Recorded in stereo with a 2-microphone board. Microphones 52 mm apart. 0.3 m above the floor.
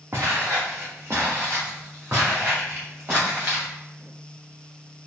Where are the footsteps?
50° right (ahead or behind), 1.2 m; by 3.7 s 35° right (ahead or behind), 3 m.